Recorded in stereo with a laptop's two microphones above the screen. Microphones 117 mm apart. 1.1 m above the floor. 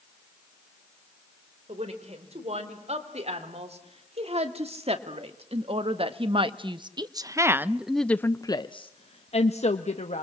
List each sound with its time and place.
1.7 s a woman speaking: 70° right (ahead or behind), 4.5 m; by 10.2 s 75° left (ahead or behind), 1.5 m